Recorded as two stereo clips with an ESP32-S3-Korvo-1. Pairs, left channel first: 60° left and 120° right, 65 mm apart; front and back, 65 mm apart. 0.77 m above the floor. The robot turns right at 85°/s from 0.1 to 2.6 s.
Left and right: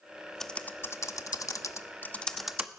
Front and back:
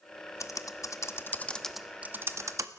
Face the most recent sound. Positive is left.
turn(degrees=165)